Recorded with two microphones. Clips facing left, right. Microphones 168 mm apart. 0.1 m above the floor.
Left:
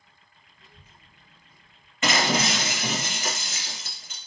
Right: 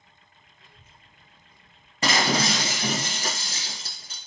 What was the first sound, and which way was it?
A child speaking, 45° left (ahead or behind).